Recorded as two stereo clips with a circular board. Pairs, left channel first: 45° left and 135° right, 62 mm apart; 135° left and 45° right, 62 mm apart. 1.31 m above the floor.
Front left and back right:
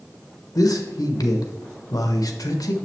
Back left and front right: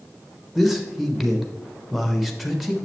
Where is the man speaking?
45° left, 0.9 m.